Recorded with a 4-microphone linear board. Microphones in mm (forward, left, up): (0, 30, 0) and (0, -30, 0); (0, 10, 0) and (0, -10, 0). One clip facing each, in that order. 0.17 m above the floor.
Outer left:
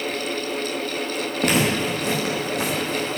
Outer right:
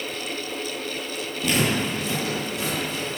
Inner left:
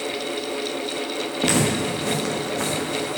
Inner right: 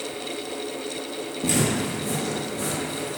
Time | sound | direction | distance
1.4 | footsteps | 55° left (ahead or behind) | 2 m